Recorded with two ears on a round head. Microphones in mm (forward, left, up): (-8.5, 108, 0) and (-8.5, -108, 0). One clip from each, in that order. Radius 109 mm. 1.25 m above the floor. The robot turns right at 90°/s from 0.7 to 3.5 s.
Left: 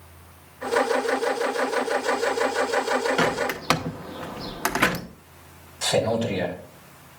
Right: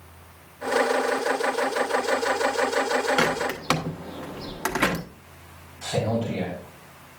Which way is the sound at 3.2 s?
15° right (ahead or behind).